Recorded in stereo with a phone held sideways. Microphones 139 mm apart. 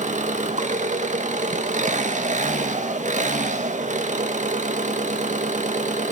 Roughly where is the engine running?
Right.